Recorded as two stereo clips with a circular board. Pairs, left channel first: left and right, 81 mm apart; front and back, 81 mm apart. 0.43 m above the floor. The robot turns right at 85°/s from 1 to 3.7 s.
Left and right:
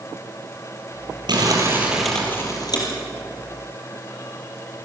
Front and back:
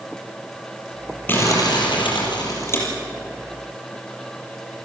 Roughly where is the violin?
I don't hear a violin.